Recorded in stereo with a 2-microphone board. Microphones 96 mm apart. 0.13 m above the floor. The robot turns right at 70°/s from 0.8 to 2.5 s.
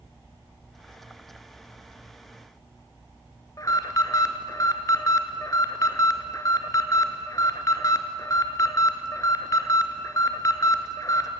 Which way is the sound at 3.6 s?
40° left (ahead or behind).